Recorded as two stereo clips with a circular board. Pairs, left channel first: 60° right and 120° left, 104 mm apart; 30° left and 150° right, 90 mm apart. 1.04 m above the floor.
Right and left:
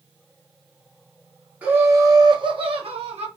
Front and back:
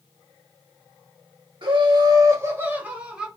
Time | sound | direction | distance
1.6 | laughter | 165° right | 0.7 m